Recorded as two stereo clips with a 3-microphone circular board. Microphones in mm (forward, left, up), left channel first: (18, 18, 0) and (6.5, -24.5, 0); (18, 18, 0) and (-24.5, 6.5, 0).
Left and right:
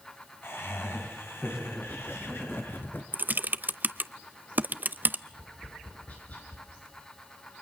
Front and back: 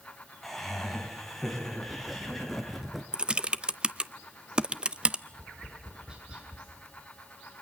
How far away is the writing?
About 2 m.